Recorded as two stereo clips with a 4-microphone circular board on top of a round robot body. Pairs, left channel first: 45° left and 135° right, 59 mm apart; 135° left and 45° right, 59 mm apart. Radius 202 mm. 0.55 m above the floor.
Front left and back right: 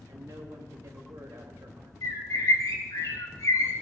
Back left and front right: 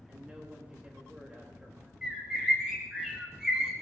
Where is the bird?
35° left, 3.5 m.